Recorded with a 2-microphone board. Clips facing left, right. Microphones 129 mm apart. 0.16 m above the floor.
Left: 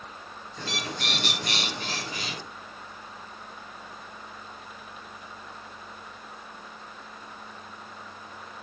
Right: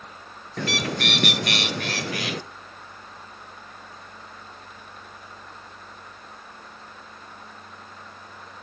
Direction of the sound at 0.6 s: 70° right (ahead or behind).